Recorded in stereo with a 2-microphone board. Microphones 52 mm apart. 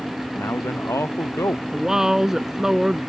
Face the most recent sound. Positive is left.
turn(degrees=-10)  # may be behind; listen again after turning